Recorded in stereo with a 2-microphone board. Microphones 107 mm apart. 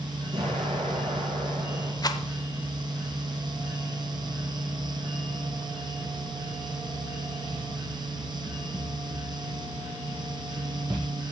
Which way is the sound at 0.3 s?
55° right (ahead or behind).